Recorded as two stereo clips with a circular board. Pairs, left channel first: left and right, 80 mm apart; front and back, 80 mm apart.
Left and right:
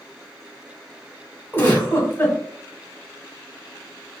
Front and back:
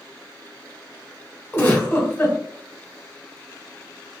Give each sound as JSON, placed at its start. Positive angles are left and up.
{"t": 1.5, "sound": "a giggle", "azimuth_deg": 40, "distance_m": 1.3}